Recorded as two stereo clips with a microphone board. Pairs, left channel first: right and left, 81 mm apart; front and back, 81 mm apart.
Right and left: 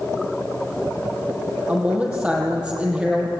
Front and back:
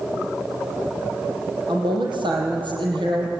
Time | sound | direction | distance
1.7 | a woman speaking | 165° left | 7.5 m